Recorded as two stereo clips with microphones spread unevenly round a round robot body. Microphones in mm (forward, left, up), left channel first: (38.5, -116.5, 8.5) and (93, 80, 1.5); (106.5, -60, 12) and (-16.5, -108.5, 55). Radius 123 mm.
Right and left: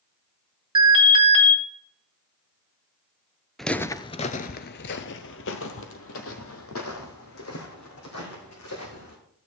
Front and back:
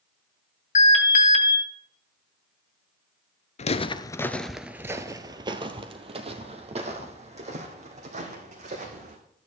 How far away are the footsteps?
About 0.6 m.